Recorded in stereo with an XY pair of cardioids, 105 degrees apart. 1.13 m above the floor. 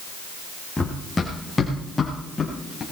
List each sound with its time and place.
0.8 s running footsteps: 20° left, 3.5 m; by 2.8 s 30° left, 6 m